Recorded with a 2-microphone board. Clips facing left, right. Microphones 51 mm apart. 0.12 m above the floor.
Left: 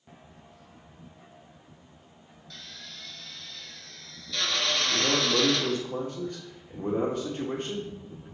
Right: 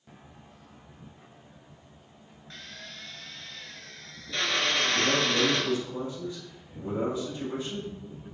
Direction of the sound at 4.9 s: 60° left (ahead or behind).